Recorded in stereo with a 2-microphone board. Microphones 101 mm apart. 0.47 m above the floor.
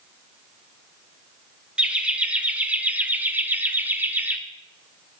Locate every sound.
1.8 s laughter: 10° right (ahead or behind), 2 m; by 4.4 s 15° right (ahead or behind), 1.2 m